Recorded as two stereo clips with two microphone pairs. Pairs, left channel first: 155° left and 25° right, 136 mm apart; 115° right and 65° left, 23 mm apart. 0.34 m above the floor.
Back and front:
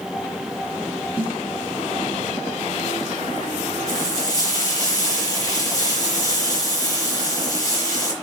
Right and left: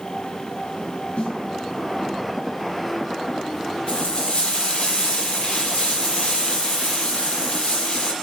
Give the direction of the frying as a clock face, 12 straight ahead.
5 o'clock.